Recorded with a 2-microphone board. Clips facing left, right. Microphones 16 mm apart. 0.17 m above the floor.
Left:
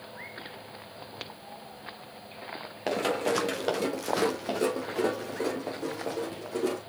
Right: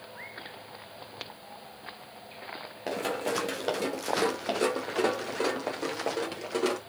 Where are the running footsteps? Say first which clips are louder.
Left 3 dB; 20° left (ahead or behind), 1.3 m; by 6.8 s 65° right (ahead or behind), 2.0 m.